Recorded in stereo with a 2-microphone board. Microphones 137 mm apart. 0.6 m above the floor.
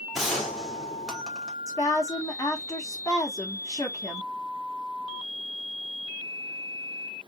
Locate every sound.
0.1 s a gunshot: centre (ahead or behind), 1.4 m
1.7 s a woman speaking: 25° left (ahead or behind), 1.0 m